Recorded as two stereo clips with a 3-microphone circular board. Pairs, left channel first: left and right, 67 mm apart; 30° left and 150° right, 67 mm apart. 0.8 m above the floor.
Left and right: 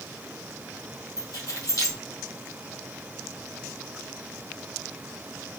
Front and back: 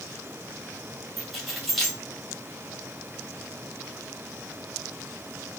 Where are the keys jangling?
120° left, 2.5 m.